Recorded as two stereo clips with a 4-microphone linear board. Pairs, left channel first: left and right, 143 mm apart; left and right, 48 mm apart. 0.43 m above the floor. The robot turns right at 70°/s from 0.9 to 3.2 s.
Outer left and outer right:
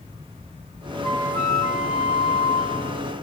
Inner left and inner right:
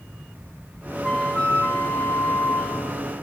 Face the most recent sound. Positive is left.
turn(degrees=155)